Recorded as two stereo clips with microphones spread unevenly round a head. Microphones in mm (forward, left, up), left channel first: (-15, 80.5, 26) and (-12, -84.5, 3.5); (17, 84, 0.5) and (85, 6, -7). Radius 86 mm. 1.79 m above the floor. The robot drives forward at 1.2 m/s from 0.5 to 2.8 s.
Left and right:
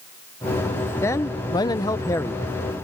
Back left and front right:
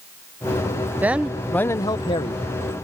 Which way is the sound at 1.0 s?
25° left.